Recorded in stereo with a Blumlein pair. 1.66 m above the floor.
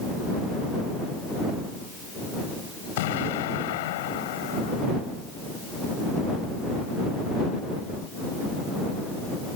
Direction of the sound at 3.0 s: 55° left.